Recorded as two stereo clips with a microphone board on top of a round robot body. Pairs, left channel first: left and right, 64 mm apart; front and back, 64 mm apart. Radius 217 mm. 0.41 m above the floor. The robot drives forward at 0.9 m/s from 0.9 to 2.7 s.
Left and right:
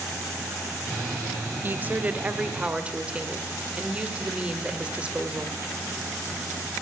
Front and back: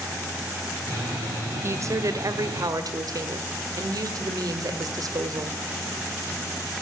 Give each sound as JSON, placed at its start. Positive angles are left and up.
{"t": 1.6, "sound": "a woman speaking", "azimuth_deg": -145, "distance_m": 1.2}